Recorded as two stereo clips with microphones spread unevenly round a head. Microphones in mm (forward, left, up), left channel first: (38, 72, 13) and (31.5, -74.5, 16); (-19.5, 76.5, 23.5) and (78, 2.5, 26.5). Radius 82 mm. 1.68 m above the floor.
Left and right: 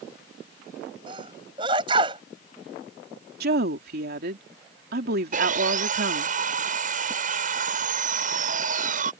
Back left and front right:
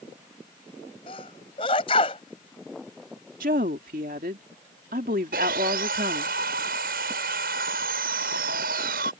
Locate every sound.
1.1 s a sneeze: 155° right
3.4 s a woman speaking: 80° right
5.3 s sawing: 60° right